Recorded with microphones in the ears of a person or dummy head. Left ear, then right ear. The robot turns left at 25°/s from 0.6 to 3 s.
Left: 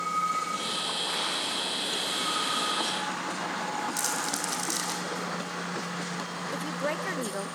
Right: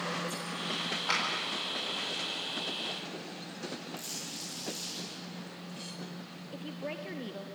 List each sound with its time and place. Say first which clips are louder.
1.1 s a clap: right 1 dB; 40° right (ahead or behind), 8 m; by 1.2 s 45° right (ahead or behind), 8 m
4.0 s crumpling: left 10 dB; 60° left (ahead or behind), 6 m
6.5 s a woman speaking: left 8 dB; 45° left (ahead or behind), 0.8 m